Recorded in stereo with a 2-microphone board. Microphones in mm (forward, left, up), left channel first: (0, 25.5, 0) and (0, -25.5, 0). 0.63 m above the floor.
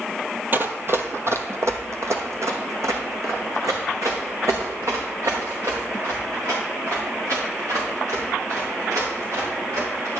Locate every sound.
0.5 s running footsteps: 40° right (ahead or behind), 0.9 m; by 10.2 s 85° right, 6.5 m